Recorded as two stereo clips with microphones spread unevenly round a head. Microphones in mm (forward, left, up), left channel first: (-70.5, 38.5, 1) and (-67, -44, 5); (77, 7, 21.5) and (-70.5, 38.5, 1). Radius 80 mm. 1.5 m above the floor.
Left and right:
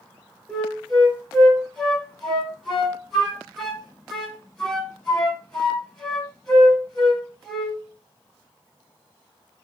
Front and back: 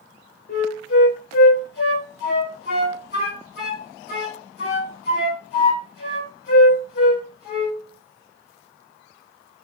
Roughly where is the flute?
Ahead.